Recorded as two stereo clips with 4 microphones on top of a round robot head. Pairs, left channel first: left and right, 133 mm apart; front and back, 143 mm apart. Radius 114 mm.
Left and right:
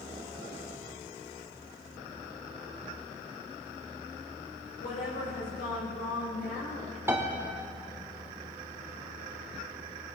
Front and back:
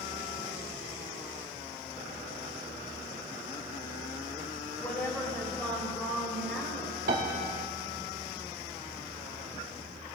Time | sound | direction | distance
4.8 | a woman speaking | 80° left | 6 m
7.1 | a piano | 160° right | 1.9 m